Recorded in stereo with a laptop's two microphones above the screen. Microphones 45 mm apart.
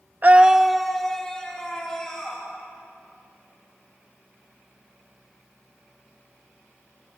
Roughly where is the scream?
Right.